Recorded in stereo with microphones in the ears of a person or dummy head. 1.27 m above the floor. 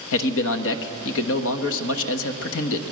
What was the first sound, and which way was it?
A man speaking, 80° left.